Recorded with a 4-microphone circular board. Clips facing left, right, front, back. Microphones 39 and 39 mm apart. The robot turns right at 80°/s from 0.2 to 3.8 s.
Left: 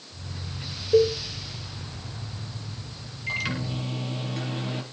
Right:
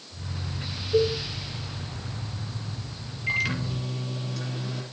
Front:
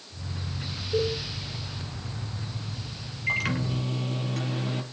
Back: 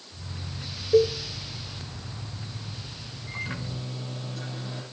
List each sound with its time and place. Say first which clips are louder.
0.9 s a cowbell: left 3 dB, back 7 dB; 130° left, 8 m; by 1.2 s 150° left, 8 m
3.3 s a microwave: right 3 dB, front 8 dB; 10° right, 5.5 m; by 4.8 s 30° left, 5.5 m